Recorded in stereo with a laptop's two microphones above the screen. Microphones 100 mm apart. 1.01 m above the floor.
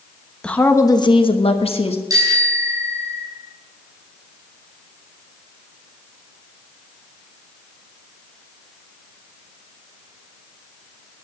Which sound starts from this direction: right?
A bicycle bell, at 2.1 s.